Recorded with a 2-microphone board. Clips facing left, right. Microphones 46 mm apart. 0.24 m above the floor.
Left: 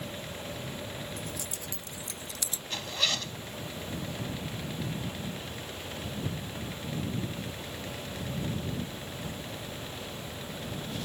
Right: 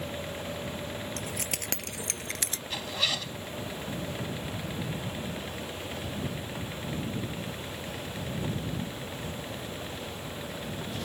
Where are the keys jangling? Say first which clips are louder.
Right 3 dB; 75° right (ahead or behind); by 2.6 s 55° right (ahead or behind).